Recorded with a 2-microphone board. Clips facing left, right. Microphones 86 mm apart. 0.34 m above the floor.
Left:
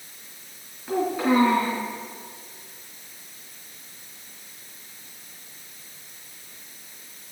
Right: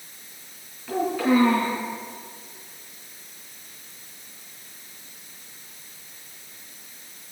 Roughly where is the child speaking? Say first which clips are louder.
Right 1 dB; left.